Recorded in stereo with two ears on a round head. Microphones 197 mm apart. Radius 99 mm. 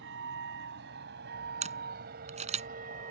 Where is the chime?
I don't hear a chime.